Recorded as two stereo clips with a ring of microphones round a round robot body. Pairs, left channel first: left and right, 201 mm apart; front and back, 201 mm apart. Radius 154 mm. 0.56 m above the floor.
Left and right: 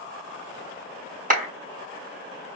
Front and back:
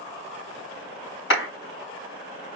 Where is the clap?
40° right, 3.5 m.